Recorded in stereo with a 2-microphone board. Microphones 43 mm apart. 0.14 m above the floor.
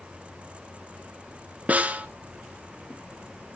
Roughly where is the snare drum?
Right.